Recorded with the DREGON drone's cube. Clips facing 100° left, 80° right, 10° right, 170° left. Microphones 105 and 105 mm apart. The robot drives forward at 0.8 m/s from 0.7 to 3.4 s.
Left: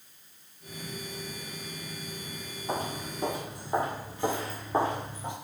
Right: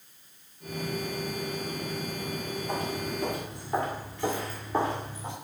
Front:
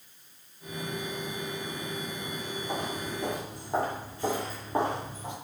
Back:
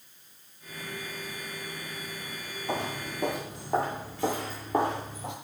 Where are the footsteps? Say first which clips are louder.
Left 1 dB, back 3 dB; 160° left, 1.5 m; by 5.3 s 175° left, 3.5 m.